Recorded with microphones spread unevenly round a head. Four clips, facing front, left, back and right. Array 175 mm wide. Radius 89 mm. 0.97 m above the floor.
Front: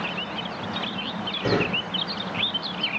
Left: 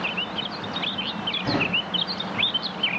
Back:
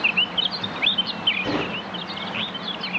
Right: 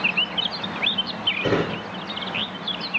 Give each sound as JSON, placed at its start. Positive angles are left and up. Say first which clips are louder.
{"t": 1.4, "sound": "a drawer", "louder": "right 4 dB, front 2 dB", "azimuth_deg": -65, "distance_m": 7.0}